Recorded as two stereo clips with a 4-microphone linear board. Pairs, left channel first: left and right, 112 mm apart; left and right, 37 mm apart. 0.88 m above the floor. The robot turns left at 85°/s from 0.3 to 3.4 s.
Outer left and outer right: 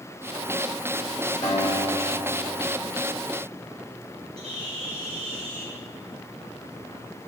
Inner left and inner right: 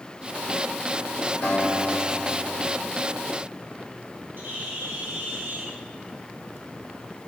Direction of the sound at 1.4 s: 95° left.